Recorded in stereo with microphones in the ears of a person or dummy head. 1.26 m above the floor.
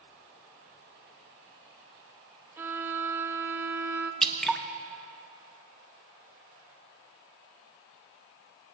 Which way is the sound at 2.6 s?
15° right (ahead or behind).